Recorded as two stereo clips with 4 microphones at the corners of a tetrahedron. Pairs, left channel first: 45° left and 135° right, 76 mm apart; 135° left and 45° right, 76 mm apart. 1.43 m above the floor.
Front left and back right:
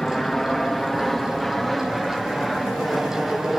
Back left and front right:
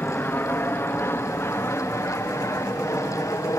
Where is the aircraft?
125° left; by 3.6 s 135° left.